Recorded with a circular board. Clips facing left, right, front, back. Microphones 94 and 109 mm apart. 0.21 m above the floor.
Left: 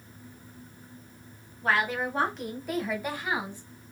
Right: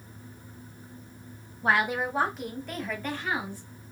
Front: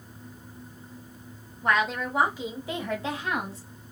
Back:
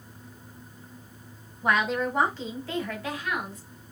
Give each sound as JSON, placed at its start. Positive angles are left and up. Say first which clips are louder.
{"t": 1.6, "sound": "a woman speaking", "louder": "right 1 dB, back 1 dB", "azimuth_deg": -110, "distance_m": 1.1}